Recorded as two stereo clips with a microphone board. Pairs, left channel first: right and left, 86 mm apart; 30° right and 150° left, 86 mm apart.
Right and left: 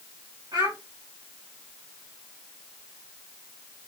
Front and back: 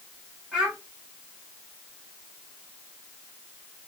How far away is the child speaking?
About 1.8 m.